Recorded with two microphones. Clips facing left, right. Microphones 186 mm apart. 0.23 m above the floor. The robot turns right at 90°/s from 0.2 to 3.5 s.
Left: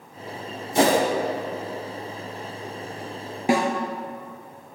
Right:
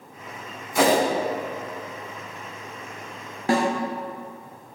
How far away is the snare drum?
About 0.8 m.